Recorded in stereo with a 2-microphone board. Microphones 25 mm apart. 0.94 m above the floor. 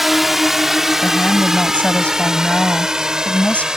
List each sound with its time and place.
0.0 s a drone: 10° right (ahead or behind); by 3.8 s 30° right (ahead or behind)
1.0 s a woman speaking: 50° left (ahead or behind)